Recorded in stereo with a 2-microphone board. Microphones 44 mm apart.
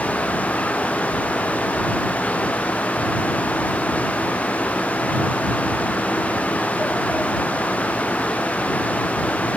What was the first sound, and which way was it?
Only background noise.